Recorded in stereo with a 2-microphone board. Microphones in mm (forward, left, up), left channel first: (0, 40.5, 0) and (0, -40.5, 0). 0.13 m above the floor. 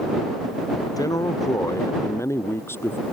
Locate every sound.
1.0 s a man speaking: 50° left (ahead or behind); by 3.0 s 25° left (ahead or behind)